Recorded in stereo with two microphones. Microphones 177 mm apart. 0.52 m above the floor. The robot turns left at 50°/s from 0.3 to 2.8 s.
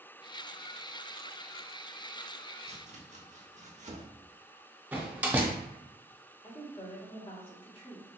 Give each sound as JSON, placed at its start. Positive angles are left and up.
{"t": 2.7, "sound": "chopping", "side_deg": -35, "distance_m": 0.6}
{"t": 4.9, "sound": "a door slam", "side_deg": -10, "distance_m": 0.6}
{"t": 6.4, "sound": "a woman speaking", "side_deg": 30, "distance_m": 0.9}